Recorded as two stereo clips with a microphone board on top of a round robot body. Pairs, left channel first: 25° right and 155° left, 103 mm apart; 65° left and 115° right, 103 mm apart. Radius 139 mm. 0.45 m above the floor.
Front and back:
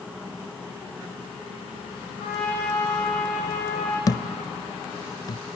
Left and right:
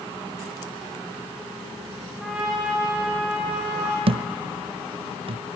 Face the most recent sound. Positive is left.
turn(degrees=-80)